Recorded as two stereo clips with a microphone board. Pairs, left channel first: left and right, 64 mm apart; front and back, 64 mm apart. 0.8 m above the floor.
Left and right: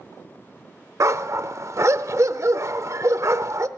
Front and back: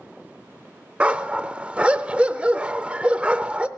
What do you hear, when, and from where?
1.0 s a dog barking: 110° right, 0.6 m